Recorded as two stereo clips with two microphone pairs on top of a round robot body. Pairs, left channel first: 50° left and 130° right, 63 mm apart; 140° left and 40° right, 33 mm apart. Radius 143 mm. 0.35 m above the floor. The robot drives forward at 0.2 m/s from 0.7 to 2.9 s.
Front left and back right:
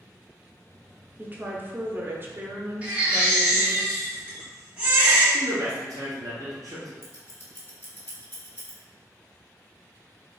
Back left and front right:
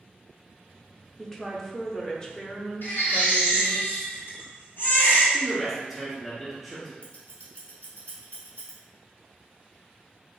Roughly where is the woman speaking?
Behind right.